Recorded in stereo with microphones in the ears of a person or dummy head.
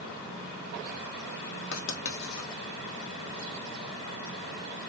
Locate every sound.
1.7 s writing: 75° left (ahead or behind), 1.1 m